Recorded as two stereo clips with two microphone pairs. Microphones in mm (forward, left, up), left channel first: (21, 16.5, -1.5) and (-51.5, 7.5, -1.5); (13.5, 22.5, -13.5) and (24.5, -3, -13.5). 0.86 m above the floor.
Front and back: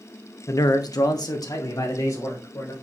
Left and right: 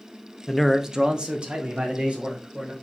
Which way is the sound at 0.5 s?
35° left.